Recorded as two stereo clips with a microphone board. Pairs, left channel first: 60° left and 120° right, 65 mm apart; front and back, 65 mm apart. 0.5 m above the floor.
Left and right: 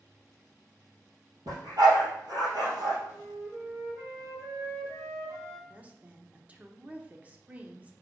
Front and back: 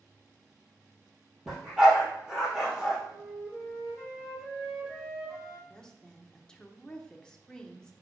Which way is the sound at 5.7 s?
70° right.